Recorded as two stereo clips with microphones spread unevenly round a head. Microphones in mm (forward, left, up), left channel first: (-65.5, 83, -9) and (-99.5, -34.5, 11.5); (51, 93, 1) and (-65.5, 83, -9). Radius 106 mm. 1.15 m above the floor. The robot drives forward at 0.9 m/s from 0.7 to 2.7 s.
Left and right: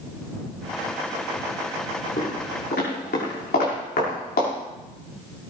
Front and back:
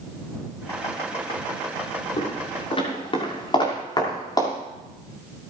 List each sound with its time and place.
2.2 s footsteps: 30° left, 7 m; by 4.5 s 60° left, 6 m